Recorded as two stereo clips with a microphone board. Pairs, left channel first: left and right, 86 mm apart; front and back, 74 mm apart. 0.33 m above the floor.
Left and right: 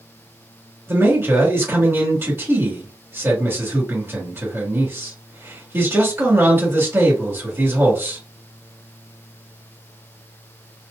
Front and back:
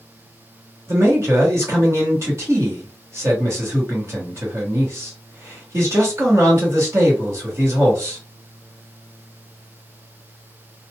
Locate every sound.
0.9 s a man speaking: 145° right, 1.9 m